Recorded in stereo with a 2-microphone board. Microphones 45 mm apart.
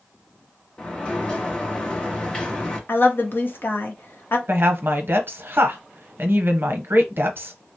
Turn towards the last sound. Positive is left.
turn(degrees=-55)  # may be behind; listen again after turning